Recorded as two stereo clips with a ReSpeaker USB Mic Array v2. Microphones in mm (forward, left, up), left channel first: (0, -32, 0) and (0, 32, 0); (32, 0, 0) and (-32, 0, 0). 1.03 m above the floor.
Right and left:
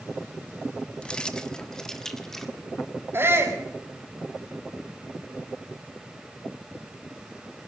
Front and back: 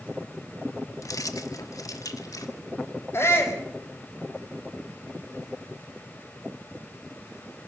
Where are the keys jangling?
15° right, 1.2 m; by 2.5 s 5° right, 2.0 m.